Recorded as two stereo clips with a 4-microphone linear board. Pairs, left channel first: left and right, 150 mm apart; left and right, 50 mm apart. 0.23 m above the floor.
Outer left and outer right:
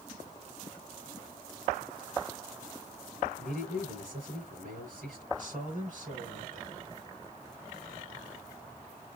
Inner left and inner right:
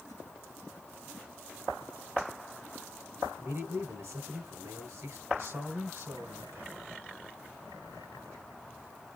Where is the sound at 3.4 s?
65° right (ahead or behind), 3 m.